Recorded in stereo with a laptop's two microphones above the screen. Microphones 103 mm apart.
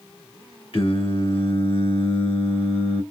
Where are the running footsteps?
I don't hear running footsteps.